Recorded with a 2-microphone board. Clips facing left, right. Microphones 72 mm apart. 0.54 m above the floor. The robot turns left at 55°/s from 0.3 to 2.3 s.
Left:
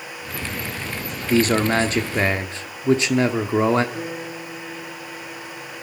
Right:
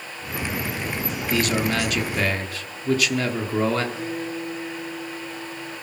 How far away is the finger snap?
I don't hear a finger snap.